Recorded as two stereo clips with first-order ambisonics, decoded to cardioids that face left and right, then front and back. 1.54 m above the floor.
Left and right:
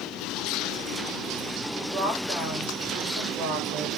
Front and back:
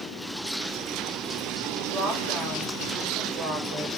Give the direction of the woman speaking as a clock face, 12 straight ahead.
5 o'clock.